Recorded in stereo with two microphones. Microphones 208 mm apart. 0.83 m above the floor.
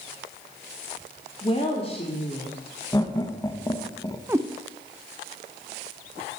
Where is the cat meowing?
15° right (ahead or behind), 0.6 m.